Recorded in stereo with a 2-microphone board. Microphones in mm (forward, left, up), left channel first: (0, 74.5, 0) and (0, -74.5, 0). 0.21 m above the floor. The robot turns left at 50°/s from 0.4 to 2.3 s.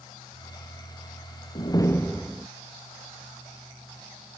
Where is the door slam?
35° left; by 2.5 s 5° right.